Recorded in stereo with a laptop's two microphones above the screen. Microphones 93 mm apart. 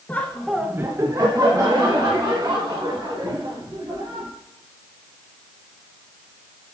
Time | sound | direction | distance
0.1 | laughter | 20° left (ahead or behind) | 0.9 m